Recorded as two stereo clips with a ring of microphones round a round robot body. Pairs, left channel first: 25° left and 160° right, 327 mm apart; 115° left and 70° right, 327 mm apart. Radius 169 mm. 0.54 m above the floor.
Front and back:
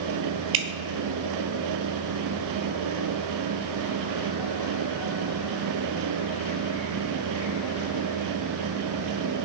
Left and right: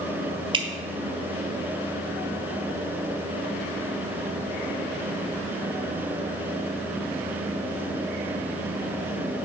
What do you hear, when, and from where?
0.5 s dripping: 145° right, 1.0 m